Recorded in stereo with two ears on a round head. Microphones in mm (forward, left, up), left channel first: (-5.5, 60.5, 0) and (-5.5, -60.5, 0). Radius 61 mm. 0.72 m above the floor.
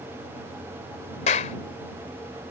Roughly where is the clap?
Left.